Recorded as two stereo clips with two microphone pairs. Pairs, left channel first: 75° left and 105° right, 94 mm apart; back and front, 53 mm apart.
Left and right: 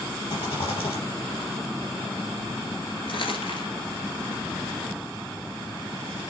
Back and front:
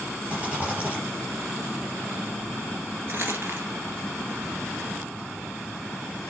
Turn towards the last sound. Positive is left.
turn(degrees=50)